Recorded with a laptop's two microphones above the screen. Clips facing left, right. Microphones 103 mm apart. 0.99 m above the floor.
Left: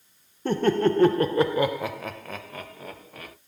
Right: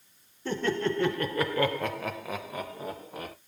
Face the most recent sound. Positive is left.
turn(degrees=-25)  # may be behind; listen again after turning